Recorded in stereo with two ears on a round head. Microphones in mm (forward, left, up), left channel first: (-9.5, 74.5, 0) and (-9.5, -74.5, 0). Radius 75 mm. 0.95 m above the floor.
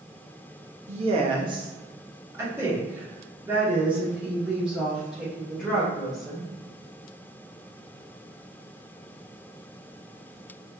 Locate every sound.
0.9 s a woman speaking: 40° right (ahead or behind), 0.8 m; by 6.5 s centre (ahead or behind), 3.5 m